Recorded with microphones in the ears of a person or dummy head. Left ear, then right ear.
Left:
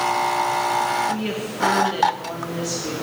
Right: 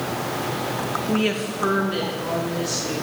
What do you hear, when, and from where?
1.1 s a woman speaking: 35° right (ahead or behind), 0.8 m; by 2.9 s 40° left (ahead or behind), 2.5 m